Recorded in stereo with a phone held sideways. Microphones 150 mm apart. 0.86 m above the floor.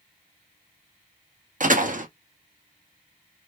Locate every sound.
1.6 s a door slam: 60° right (ahead or behind), 0.8 m